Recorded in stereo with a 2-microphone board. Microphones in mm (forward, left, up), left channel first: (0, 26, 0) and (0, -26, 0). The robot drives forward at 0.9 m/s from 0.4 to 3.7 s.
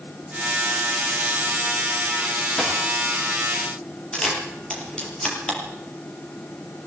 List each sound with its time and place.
2.6 s a dropped coin: 10° left (ahead or behind), 7 m
4.1 s a camera shutter: 15° left (ahead or behind), 5 m